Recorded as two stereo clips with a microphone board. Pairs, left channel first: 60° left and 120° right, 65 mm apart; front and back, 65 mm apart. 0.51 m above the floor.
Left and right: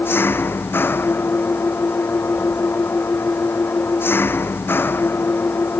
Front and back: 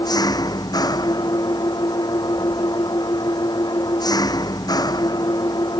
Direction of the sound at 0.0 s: 5° left.